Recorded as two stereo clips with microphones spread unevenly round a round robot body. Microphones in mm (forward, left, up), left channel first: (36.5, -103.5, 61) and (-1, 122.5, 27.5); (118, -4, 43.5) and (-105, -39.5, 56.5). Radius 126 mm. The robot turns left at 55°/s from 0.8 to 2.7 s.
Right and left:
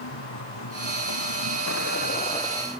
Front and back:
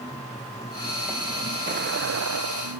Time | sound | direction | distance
0.0 | a vehicle | 65° right | ?